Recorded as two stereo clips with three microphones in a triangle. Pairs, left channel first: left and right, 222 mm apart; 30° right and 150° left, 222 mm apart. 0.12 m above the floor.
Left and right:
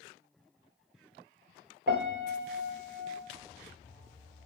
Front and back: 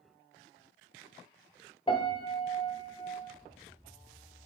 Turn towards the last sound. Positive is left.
turn(degrees=-90)